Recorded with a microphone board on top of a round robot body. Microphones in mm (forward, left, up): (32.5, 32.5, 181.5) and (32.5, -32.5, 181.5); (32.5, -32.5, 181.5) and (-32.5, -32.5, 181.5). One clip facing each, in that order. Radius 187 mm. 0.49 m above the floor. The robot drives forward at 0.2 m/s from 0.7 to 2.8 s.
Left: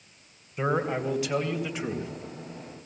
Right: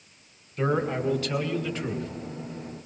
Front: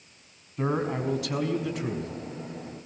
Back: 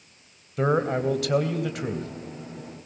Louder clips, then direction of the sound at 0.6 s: Right 1 dB, back 5 dB; 170° left.